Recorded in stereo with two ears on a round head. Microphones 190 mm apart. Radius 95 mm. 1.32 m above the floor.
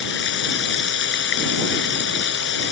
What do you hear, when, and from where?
0.0 s running water: 55° left (ahead or behind)